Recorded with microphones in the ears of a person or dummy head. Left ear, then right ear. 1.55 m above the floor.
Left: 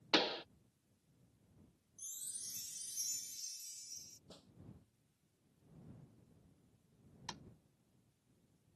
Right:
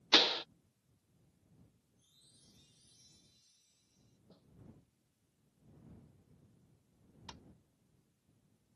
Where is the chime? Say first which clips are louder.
Left 18 dB; 60° left (ahead or behind).